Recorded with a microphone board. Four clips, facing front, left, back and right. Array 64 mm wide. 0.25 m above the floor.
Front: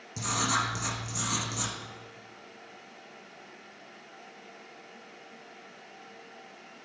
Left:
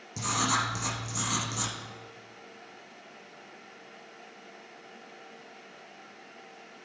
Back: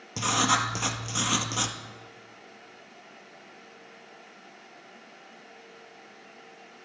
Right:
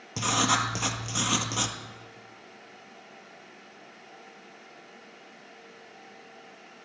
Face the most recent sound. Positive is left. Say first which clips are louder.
# right 3 dB, back 4 dB
turn(degrees=-130)